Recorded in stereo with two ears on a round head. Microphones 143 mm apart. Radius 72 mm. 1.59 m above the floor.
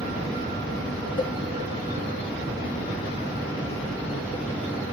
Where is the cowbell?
25° left (ahead or behind), 1.0 m.